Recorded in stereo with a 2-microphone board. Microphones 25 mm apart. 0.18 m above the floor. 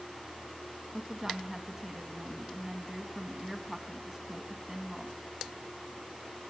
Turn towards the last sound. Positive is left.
turn(degrees=-15)  # may be behind; listen again after turning